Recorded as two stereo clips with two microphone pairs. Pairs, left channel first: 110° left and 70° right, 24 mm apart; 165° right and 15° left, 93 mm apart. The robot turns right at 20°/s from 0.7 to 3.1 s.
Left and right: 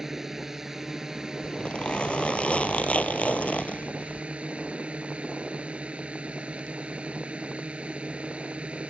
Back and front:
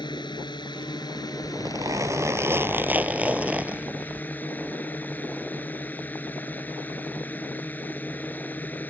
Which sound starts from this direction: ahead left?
A zipper, at 1.4 s.